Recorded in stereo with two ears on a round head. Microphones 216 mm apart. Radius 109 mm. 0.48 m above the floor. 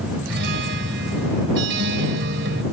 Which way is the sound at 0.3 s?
45° right (ahead or behind).